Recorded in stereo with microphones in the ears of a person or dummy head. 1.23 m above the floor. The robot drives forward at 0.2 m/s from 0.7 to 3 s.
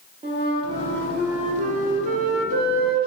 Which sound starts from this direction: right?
A flute, at 0.2 s.